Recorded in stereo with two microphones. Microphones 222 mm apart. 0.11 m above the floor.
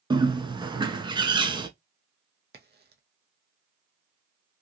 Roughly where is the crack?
Right.